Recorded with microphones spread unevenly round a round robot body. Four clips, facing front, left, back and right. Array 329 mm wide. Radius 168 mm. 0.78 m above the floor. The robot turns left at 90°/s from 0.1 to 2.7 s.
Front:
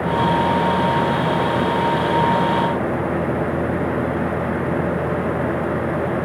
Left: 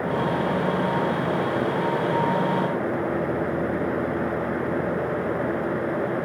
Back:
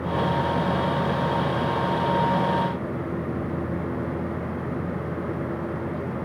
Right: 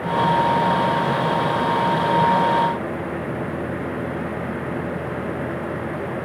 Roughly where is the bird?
I don't hear a bird.